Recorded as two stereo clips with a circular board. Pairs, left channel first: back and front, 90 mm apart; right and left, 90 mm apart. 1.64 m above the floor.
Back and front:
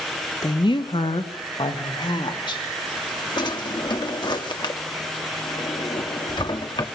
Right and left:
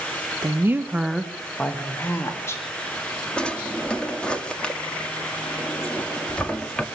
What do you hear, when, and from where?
0.4 s a woman speaking: 140° left, 1.5 m; by 2.6 s 150° right, 3.5 m
3.4 s a drawer: 165° right, 1.7 m